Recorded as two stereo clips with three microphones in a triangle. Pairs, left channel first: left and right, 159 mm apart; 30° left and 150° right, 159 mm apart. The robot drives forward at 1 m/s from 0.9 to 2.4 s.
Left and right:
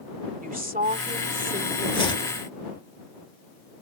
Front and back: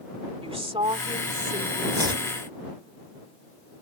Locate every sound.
0.4 s a woman speaking: 100° right; by 1.8 s 120° right
1.9 s chopping: 145° left; by 2.3 s 150° left